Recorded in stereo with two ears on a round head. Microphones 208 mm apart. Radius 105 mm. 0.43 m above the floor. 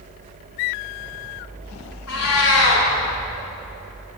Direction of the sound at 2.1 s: 70° left (ahead or behind).